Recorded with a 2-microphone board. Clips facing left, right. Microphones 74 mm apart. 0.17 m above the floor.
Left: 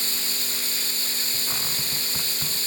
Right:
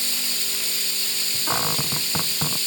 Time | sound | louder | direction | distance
0.0 | running water | even | 40° left (ahead or behind) | ?
1.5 | a cupboard door | right 12 dB | 45° right (ahead or behind) | ?